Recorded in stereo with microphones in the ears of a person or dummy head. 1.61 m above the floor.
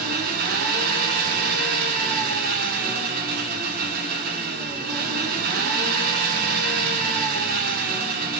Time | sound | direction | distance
0.0 | an engine running | 55° right (ahead or behind) | 1.0 m